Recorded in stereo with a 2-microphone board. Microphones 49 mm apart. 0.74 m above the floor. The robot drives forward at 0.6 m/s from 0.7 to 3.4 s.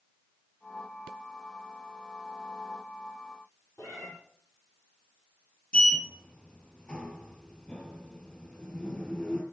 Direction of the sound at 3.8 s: 80° left.